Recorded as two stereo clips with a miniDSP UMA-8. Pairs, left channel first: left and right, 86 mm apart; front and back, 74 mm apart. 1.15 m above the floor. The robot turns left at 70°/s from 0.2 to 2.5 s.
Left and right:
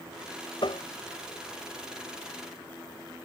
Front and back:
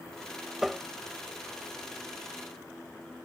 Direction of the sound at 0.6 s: 95° left.